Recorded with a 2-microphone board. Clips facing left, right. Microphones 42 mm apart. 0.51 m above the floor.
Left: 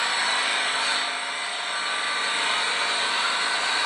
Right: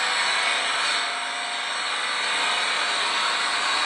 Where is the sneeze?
I don't hear a sneeze.